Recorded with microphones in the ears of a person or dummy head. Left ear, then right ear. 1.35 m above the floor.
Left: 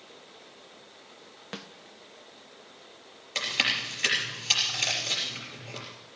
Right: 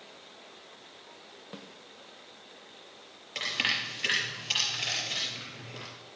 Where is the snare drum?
45° left (ahead or behind), 0.7 m.